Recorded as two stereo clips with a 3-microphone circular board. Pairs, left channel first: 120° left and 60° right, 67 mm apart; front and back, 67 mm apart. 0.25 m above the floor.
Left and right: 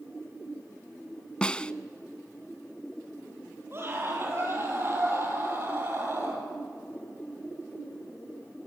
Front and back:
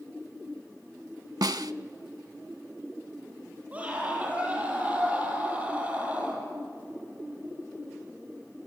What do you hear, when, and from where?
1.4 s a snare drum: 165° right, 0.5 m
3.7 s a scream: 110° right, 8 m